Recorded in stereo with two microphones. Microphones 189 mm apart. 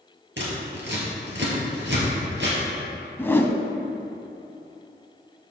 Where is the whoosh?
10° left (ahead or behind), 0.7 m.